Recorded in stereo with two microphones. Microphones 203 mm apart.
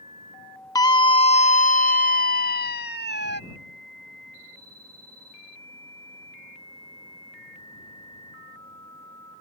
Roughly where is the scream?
Centre.